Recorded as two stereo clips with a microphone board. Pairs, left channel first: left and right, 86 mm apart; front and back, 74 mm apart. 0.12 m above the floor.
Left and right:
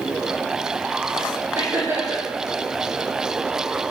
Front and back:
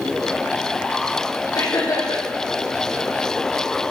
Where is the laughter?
30° right, 5.5 m.